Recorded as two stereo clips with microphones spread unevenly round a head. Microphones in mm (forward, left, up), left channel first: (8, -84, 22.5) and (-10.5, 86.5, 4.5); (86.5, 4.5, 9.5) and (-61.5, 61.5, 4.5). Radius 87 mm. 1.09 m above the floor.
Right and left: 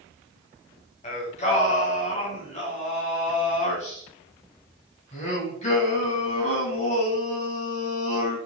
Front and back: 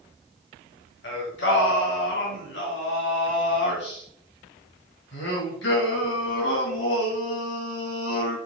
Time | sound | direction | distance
1.0 | singing | 35° right | 2.5 m